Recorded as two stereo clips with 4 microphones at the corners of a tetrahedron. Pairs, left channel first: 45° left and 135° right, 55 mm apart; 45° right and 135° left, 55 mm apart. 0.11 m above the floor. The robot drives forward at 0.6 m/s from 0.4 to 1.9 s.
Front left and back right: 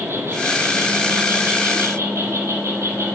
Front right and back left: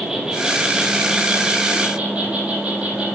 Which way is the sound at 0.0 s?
150° right.